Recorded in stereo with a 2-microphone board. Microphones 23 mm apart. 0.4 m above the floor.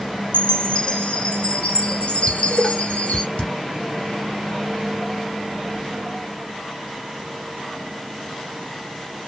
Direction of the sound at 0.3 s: 60° left (ahead or behind).